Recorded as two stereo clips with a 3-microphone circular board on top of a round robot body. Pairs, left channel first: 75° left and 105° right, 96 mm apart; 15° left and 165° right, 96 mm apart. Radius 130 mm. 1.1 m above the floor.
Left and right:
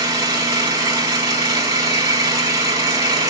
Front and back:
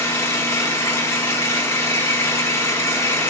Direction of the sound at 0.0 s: 55° right.